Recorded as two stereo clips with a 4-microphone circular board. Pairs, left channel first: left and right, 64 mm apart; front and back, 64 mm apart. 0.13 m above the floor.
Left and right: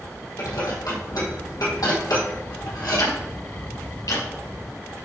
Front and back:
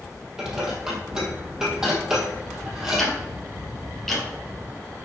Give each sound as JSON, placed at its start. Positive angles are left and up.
{"t": 0.4, "sound": "dishes clattering", "azimuth_deg": 100, "distance_m": 3.0}
{"t": 3.0, "sound": "ticking", "azimuth_deg": 85, "distance_m": 3.5}